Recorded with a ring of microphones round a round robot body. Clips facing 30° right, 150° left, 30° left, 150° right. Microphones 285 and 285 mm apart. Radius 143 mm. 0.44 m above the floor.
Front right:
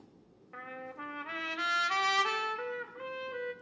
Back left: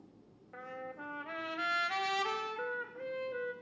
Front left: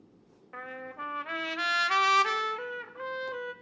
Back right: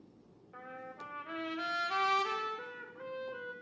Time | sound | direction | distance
0.5 | a trumpet | 40° left | 0.7 m